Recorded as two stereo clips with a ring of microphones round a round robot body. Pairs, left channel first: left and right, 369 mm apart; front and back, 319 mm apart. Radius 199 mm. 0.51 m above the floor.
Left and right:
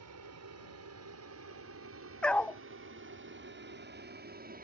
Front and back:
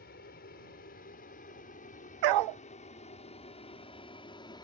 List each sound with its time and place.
0.0 s an aircraft: 55° right; by 4.7 s 60° right
2.2 s a dog barking: 175° left